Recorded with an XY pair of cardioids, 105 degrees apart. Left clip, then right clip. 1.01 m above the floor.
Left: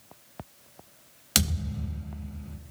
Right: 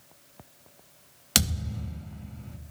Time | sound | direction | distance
1.4 | a thud | 20° right | 0.9 m